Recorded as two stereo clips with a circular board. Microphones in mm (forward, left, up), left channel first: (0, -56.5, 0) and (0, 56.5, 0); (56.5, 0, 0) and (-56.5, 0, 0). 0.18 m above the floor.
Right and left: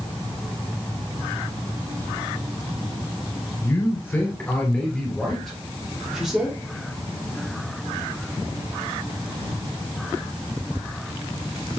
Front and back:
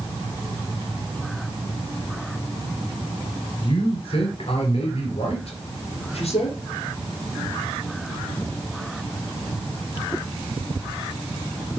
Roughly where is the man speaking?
Ahead right.